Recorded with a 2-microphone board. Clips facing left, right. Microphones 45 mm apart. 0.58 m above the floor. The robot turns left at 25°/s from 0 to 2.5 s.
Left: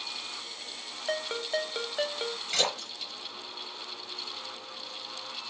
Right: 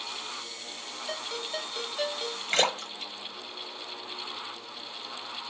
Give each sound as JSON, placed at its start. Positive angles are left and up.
{"t": 1.1, "sound": "a ringtone", "azimuth_deg": 70, "distance_m": 0.5}
{"t": 2.5, "sound": "a splash", "side_deg": -45, "distance_m": 0.9}